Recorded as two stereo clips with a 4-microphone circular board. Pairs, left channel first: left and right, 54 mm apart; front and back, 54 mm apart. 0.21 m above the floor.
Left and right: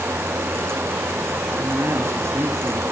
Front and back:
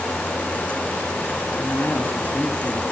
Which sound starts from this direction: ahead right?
A man speaking, at 1.6 s.